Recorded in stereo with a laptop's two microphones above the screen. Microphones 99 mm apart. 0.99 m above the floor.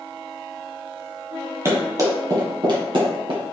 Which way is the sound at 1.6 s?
30° right (ahead or behind).